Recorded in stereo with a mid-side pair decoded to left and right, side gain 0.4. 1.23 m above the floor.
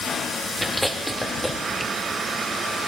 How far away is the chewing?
About 1.9 m.